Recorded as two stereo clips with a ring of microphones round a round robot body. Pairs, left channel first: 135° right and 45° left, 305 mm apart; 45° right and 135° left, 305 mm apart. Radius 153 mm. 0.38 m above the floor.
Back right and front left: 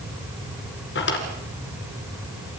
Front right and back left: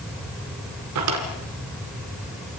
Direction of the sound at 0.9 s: 170° left.